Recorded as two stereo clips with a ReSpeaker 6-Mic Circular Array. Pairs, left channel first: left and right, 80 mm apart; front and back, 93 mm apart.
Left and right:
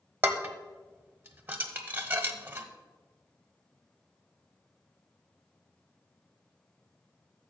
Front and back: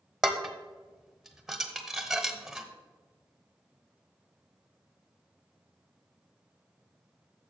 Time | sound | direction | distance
0.2 | dishes clattering | 100° right | 0.9 m